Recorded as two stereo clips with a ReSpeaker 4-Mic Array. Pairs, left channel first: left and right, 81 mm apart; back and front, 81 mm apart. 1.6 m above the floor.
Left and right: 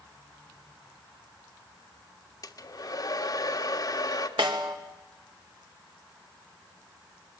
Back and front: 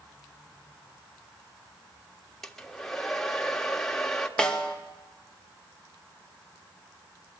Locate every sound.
2.4 s a hair dryer: 95° left, 1.6 m
4.4 s a snare drum: 100° right, 2.5 m